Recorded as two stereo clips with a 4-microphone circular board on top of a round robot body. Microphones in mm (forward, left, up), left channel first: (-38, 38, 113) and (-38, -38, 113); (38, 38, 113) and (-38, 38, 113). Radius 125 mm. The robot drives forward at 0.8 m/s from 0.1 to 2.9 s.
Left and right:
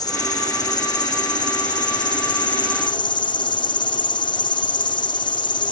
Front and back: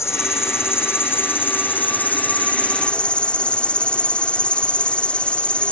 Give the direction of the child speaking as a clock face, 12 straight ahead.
I don't hear a child speaking.